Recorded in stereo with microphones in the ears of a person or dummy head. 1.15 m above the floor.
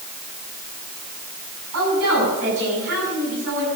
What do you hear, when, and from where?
1.7 s a woman speaking: 70° right (ahead or behind), 9 m; by 3.7 s 60° right (ahead or behind), 9.5 m